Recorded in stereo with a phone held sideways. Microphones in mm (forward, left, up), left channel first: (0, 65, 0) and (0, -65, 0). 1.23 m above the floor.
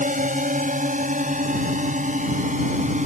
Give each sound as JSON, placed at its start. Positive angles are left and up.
{"t": 0.0, "sound": "a drone", "side_deg": -80}